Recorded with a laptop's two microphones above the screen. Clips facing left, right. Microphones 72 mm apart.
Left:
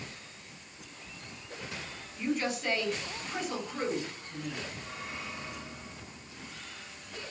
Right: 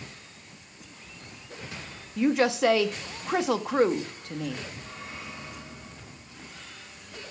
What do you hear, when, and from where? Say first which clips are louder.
2.2 s a woman speaking: right 9 dB; 75° right (ahead or behind), 1.3 m